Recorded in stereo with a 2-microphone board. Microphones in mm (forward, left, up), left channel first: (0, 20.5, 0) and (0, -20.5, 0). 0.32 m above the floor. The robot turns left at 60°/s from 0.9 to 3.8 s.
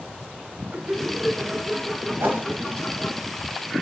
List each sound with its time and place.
0.7 s laughter: 25° right (ahead or behind), 1.5 m; by 3.2 s 25° left (ahead or behind), 1.5 m
2.2 s a whoosh: 60° right (ahead or behind), 3 m; by 2.5 s 70° right (ahead or behind), 3 m